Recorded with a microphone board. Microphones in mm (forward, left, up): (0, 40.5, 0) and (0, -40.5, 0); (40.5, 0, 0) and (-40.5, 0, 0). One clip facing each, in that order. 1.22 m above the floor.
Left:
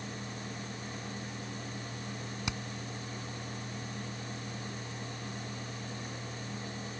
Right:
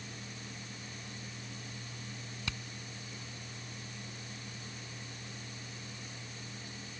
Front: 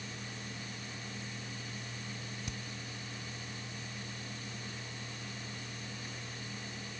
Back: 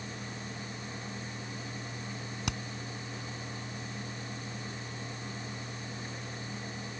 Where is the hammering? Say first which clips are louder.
Left 3 dB, back 10 dB; 160° left.